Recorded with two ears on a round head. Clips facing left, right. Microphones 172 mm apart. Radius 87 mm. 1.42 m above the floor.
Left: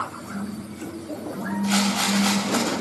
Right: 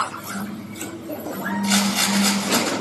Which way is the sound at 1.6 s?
30° right (ahead or behind).